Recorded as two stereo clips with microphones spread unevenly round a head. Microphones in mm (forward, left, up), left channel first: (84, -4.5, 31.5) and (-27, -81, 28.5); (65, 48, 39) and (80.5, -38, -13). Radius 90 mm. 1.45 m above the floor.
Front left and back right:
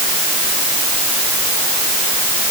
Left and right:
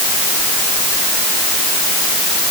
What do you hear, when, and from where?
Only background noise.